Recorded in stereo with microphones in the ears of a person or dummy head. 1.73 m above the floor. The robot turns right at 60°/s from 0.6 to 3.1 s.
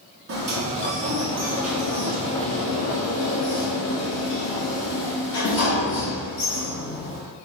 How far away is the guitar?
No guitar in this recording.